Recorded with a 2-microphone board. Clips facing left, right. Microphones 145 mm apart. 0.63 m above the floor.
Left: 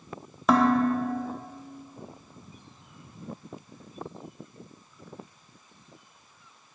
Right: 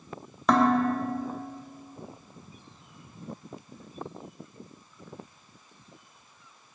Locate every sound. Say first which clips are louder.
0.5 s dishes clattering: left 1 dB; 5° left (ahead or behind), 0.7 m